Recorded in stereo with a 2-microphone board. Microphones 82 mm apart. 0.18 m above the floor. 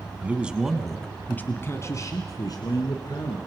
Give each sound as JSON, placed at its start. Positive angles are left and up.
{"t": 0.2, "sound": "a man speaking", "side_deg": -20, "distance_m": 1.5}